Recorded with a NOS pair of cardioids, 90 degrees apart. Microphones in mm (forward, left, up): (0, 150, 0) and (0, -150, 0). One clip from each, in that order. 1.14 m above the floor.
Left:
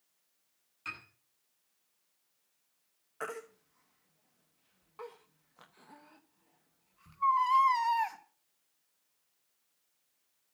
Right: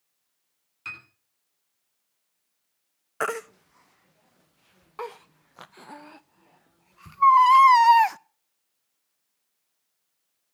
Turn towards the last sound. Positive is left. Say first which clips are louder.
# right 12 dB
turn(degrees=-60)